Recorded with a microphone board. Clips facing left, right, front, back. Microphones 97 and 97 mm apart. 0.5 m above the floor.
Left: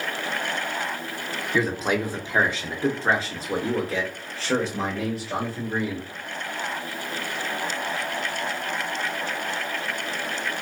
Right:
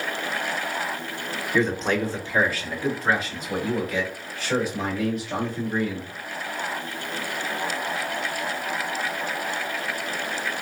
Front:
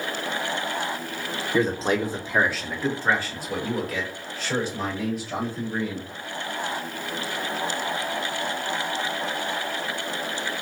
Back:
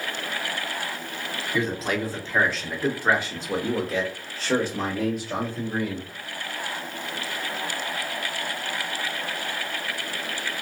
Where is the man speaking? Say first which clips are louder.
Right 1 dB, front 4 dB; 10° left, 1.0 m; by 6.1 s 145° left, 2.5 m.